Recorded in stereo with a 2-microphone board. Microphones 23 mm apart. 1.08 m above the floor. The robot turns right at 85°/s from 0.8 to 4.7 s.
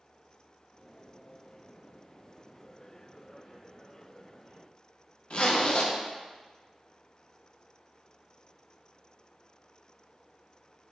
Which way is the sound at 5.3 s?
55° left (ahead or behind).